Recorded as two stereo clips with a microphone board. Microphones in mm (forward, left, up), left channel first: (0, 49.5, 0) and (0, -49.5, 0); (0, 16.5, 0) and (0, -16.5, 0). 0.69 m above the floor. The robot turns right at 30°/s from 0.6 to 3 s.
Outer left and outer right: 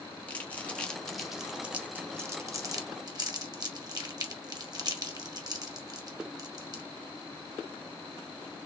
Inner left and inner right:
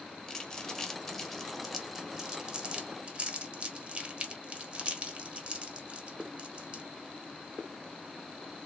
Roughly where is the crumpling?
Centre.